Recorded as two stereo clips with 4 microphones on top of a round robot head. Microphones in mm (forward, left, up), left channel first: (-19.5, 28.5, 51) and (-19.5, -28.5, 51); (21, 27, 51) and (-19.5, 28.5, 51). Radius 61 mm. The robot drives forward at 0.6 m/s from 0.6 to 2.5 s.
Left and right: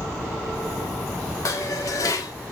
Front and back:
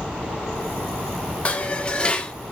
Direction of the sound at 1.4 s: 55° left.